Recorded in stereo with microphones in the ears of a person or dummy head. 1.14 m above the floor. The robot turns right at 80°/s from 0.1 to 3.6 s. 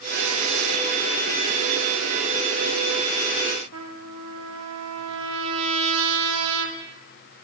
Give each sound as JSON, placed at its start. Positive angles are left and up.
{"t": 3.7, "sound": "a trumpet", "side_deg": -75, "distance_m": 3.0}